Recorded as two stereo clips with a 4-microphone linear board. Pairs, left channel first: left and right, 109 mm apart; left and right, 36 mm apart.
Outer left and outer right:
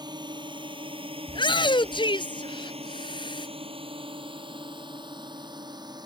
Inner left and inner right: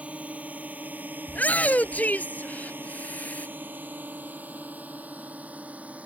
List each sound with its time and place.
0.0 s a drone: 40° right (ahead or behind); by 6.1 s 35° right (ahead or behind)
1.3 s a shout: 45° left (ahead or behind)